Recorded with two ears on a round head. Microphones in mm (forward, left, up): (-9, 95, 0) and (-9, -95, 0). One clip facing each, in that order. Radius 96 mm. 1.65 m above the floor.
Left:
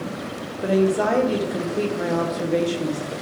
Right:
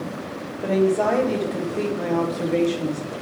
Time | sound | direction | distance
0.6 | a woman speaking | 10° left (ahead or behind) | 0.9 m